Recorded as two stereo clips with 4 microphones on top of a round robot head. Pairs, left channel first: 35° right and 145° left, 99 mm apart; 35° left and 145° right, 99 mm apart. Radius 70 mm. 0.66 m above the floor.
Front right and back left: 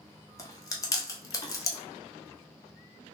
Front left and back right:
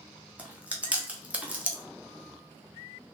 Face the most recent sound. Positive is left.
turn(degrees=-70)